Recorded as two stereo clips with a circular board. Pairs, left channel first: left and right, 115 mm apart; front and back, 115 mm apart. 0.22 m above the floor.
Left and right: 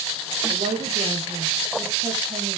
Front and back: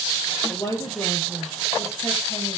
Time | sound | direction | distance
0.5 | a woman speaking | 60° right | 5 m